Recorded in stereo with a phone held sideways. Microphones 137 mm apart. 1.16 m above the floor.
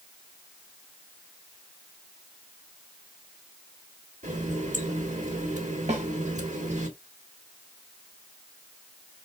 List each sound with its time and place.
4.2 s a running tap: 60° right (ahead or behind), 1.8 m
5.9 s a snare drum: 50° right (ahead or behind), 2.0 m